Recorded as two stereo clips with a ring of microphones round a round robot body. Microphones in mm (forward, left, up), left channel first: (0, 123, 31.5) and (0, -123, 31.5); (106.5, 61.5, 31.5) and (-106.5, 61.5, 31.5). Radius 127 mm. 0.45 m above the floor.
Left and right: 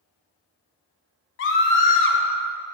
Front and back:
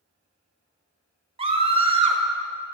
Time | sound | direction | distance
1.4 | a scream | 120° left | 2 m